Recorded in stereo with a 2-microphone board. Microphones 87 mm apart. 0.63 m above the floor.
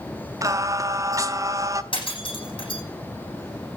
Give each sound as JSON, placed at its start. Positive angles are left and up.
{"t": 0.4, "sound": "singing", "side_deg": -35, "distance_m": 0.7}
{"t": 1.9, "sound": "breaking glass", "side_deg": 70, "distance_m": 9.5}